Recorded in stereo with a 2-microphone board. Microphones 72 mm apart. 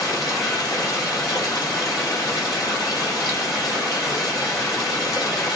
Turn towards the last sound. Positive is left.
turn(degrees=55)  # may be behind; listen again after turning